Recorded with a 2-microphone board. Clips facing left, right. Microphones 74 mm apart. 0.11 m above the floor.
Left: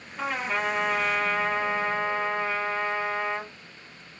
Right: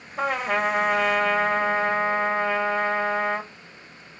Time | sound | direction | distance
0.2 | a trumpet | 80° right | 2 m